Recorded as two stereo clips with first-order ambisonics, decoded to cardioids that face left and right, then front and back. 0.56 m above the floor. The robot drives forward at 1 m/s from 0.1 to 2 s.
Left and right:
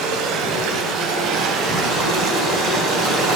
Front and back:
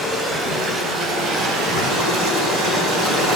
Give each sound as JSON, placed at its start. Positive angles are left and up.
{"t": 0.0, "sound": "running water", "azimuth_deg": -100, "distance_m": 2.5}